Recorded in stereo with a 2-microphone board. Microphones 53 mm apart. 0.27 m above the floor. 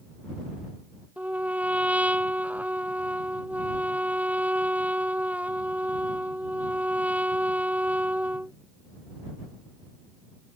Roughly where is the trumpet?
Right.